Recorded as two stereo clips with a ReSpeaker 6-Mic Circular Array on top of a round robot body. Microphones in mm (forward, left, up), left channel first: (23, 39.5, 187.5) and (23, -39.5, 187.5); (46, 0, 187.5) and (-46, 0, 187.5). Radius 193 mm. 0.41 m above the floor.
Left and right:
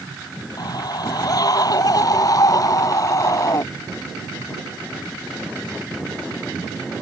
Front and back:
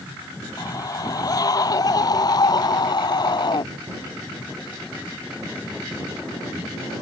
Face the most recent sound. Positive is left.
turn(degrees=45)